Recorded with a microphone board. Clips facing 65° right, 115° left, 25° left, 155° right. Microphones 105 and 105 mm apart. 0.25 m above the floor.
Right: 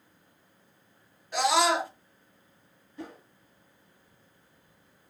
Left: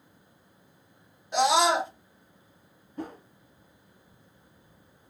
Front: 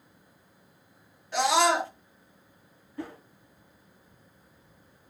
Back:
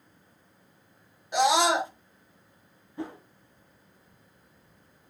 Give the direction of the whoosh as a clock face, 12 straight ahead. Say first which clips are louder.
Left 5 dB, back 2 dB; 7 o'clock.